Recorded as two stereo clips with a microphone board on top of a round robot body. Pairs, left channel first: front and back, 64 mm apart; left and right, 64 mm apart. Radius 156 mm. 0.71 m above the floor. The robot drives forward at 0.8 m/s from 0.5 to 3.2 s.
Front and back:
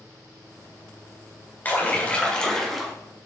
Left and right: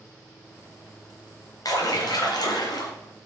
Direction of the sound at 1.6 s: 65° left.